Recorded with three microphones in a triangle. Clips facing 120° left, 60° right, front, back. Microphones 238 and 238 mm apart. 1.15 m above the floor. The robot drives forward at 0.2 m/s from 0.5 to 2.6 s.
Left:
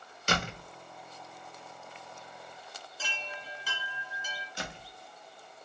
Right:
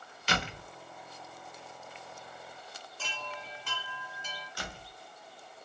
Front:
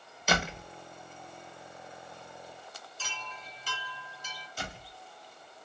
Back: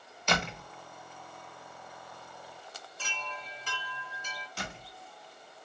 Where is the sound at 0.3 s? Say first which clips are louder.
Left 2 dB, front 1 dB; 85° left, 0.7 m; by 0.7 s 90° left, 0.7 m.